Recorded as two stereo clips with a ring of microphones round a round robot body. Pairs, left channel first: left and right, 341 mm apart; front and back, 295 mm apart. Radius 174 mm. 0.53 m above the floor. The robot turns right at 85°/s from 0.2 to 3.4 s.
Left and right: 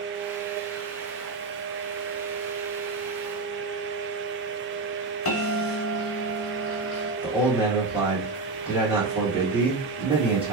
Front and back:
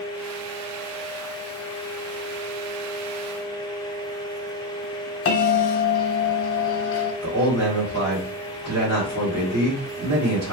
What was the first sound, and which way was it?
A bell, 40° left.